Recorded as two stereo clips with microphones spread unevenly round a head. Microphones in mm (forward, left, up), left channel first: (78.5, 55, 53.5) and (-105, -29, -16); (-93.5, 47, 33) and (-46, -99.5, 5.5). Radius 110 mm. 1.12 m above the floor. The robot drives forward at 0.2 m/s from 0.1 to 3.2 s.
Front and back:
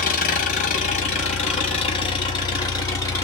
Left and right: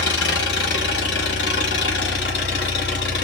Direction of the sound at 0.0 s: 75° left.